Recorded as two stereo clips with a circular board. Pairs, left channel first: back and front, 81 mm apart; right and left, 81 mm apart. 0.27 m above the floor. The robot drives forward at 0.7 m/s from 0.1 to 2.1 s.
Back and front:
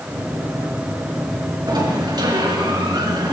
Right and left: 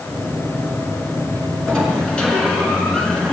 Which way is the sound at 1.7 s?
10° right.